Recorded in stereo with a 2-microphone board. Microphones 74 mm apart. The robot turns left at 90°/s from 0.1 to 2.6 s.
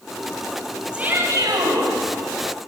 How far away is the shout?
About 8 m.